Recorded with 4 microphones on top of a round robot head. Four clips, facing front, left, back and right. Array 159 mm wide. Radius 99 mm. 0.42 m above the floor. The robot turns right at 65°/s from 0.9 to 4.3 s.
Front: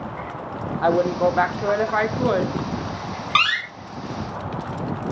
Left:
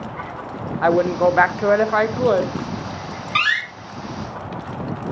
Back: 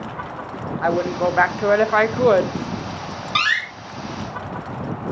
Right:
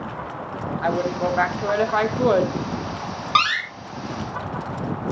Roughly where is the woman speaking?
Left.